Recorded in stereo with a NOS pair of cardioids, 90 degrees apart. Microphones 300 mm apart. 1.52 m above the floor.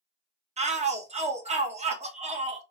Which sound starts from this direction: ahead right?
A shout, at 0.6 s.